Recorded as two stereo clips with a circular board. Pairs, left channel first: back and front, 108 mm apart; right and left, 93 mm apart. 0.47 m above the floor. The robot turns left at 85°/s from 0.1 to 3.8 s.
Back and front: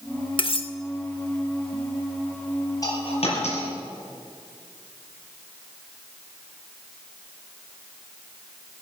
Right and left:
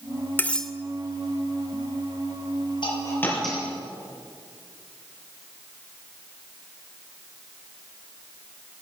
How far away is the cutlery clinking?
About 0.8 m.